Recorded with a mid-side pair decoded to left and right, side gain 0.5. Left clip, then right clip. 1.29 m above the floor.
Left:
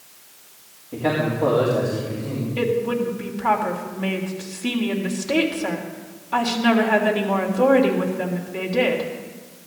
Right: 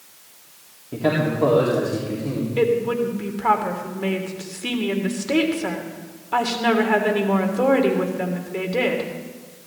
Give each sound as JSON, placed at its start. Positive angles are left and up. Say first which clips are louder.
{"t": 0.9, "sound": "a man speaking", "louder": "right 1 dB", "azimuth_deg": -30, "distance_m": 4.0}
{"t": 2.6, "sound": "a woman speaking", "louder": "right 2 dB", "azimuth_deg": -15, "distance_m": 3.0}